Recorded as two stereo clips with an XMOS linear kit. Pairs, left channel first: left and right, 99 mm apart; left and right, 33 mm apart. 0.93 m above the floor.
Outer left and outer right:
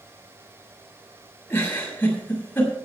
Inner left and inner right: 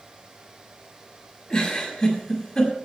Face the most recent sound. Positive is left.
turn(degrees=20)  # may be behind; listen again after turning